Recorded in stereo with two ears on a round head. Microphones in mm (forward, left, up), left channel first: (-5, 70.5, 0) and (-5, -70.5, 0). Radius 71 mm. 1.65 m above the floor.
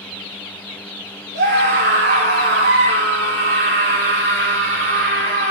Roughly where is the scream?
Right.